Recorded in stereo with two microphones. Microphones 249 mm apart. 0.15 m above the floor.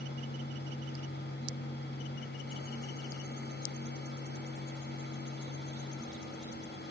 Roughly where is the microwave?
I don't hear a microwave.